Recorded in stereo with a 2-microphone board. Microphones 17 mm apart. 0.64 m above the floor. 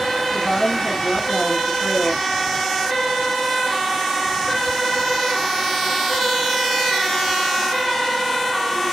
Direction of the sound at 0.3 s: 50° left (ahead or behind).